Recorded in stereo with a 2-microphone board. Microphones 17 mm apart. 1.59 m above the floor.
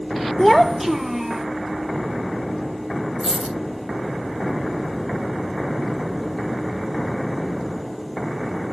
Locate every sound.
0.4 s a child speaking: 10° left (ahead or behind), 0.6 m; by 1.4 s 25° right (ahead or behind), 0.9 m
3.2 s a dropped coin: 25° right (ahead or behind), 3.5 m